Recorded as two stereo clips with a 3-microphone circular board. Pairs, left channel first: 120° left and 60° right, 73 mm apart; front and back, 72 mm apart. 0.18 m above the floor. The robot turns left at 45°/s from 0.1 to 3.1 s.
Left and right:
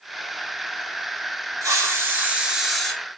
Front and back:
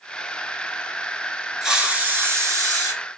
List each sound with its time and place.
1.6 s a hiss: 95° right, 0.9 m; by 2.9 s 155° right, 0.9 m